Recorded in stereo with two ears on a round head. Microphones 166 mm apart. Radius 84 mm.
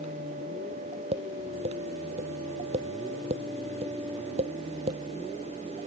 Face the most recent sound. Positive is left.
turn(degrees=-35)  # may be behind; listen again after turning